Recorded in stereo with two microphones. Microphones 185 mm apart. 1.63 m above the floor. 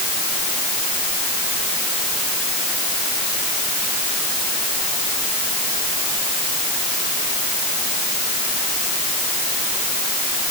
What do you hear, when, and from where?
Only background noise.